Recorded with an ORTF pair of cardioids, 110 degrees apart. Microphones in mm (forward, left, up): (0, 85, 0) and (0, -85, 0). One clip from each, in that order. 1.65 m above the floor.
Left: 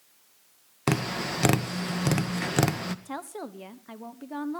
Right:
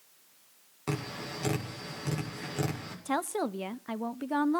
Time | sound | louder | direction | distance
0.9 | tapping | left 8 dB | 70° left | 2 m
3.0 | a woman speaking | right 6 dB | 35° right | 0.9 m